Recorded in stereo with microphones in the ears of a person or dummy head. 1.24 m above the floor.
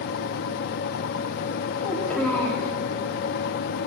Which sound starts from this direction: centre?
A child speaking, at 1.8 s.